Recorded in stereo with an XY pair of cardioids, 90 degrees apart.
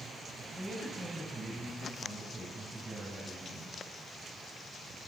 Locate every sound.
0.5 s a man speaking: 10° right, 8.5 m; by 3.8 s 40° right, 10 m